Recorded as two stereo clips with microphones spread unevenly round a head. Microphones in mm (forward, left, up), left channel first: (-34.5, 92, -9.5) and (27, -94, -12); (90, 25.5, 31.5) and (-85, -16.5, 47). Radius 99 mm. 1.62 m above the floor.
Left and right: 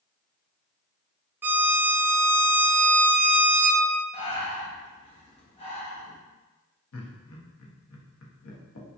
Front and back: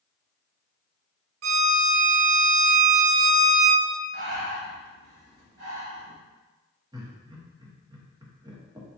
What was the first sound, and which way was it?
A violin, 150° right.